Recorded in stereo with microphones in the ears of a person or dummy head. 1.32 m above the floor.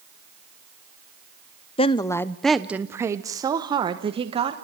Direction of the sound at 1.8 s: 30° left (ahead or behind).